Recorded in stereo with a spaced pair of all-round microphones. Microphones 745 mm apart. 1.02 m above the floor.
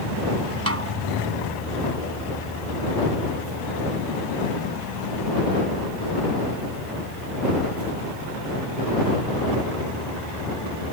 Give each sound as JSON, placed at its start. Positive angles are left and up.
{"t": 0.7, "sound": "a snare drum", "side_deg": -20}